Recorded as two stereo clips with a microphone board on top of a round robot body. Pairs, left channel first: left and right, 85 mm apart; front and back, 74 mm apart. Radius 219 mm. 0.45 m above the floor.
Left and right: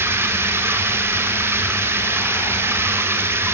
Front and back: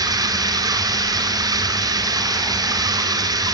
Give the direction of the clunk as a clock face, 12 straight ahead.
No clunk in this recording.